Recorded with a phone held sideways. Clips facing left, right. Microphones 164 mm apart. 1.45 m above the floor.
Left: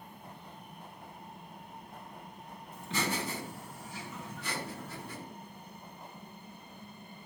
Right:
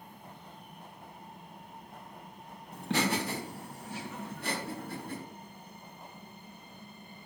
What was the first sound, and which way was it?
Laughter, 75° right (ahead or behind).